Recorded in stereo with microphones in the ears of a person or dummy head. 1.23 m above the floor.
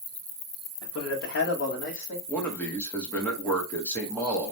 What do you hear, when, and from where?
0.8 s a man speaking: 70° left (ahead or behind), 1.2 m; by 2.2 s 35° left (ahead or behind), 1.9 m
2.3 s a man speaking: 5° left (ahead or behind), 1.5 m